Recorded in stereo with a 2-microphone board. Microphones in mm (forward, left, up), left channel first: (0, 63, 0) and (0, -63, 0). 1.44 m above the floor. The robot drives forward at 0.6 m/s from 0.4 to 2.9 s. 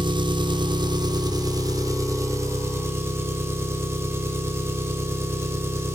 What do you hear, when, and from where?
0.0 s an engine running: 40° right (ahead or behind), 1.2 m; by 6.0 s 20° right (ahead or behind), 2 m